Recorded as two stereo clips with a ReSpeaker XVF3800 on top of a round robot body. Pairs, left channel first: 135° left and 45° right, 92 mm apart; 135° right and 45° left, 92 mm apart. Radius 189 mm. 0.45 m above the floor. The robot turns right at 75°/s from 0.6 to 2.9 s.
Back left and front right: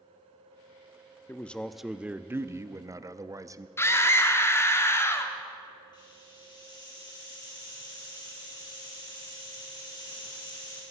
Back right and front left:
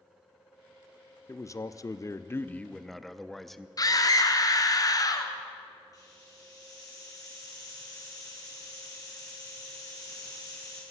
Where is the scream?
170° right, 1.9 m.